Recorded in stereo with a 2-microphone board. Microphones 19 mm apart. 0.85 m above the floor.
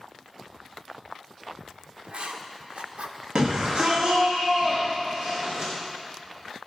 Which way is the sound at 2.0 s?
65° right (ahead or behind).